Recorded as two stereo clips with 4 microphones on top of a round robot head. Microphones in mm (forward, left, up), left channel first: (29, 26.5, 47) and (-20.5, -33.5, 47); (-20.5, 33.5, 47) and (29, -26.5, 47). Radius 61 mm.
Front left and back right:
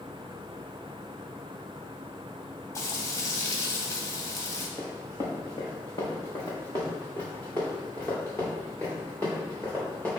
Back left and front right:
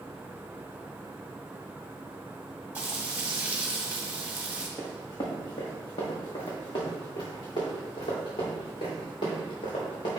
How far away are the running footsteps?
About 2.5 m.